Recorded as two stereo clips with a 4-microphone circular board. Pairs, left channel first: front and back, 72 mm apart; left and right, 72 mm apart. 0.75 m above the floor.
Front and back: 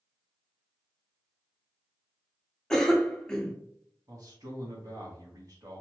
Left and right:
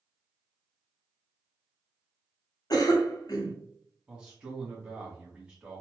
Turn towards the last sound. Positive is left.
turn(degrees=-165)